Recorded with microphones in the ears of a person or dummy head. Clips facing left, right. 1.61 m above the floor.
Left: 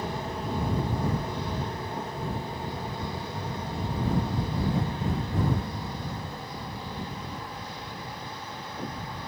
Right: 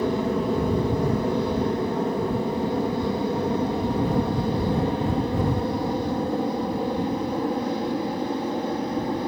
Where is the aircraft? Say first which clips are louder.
Right 10 dB; 60° right (ahead or behind); by 9.3 s 40° right (ahead or behind).